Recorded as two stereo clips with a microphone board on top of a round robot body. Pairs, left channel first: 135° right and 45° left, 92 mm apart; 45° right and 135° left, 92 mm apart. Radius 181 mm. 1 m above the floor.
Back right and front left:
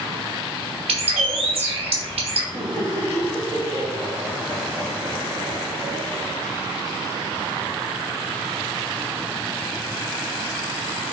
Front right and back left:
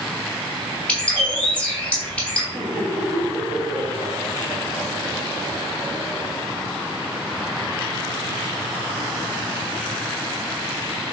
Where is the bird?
35° left, 0.9 m.